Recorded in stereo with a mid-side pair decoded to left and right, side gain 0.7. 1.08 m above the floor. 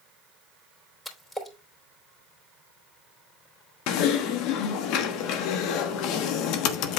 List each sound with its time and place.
1.1 s a splash: 15° left, 3.5 m
3.9 s typing on a keyboard: 65° left, 1.2 m